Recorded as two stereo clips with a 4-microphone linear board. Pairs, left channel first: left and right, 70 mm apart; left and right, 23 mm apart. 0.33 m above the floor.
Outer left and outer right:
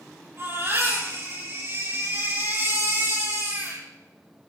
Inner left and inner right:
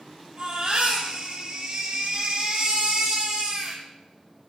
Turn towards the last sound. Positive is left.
turn(degrees=-40)  # may be behind; listen again after turning